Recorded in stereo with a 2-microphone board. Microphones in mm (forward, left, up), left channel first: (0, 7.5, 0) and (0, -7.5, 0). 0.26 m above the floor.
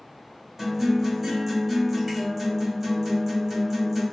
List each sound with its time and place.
0.6 s a guitar: 25° right (ahead or behind), 1.4 m